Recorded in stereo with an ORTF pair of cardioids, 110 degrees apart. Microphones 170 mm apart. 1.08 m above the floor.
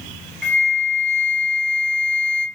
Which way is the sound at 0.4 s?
5° left.